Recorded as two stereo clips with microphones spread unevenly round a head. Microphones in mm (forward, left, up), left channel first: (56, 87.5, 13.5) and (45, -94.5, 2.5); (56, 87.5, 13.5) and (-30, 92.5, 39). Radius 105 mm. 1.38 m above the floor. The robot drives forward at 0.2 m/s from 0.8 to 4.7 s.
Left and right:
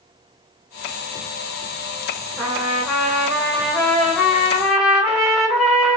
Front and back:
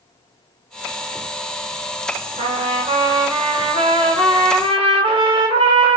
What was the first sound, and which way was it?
A trumpet, straight behind.